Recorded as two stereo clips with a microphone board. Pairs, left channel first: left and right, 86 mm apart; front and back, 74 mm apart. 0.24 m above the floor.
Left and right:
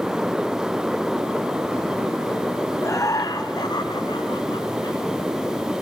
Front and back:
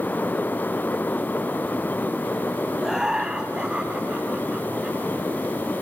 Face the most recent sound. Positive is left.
turn(degrees=110)